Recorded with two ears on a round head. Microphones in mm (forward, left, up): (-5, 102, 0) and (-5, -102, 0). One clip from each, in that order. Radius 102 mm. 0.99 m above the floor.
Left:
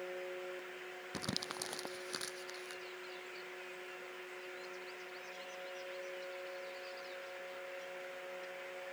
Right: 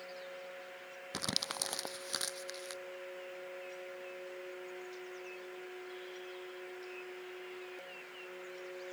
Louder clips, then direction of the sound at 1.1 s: Right 5 dB; 30° right (ahead or behind).